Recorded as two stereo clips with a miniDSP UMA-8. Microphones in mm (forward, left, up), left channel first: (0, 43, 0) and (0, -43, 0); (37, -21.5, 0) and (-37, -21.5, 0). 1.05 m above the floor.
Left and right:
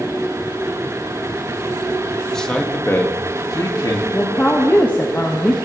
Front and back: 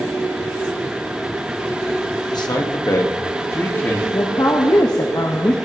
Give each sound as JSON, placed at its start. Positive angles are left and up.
{"t": 2.3, "sound": "a man speaking", "azimuth_deg": 5, "distance_m": 1.5}
{"t": 4.1, "sound": "a woman speaking", "azimuth_deg": 25, "distance_m": 1.3}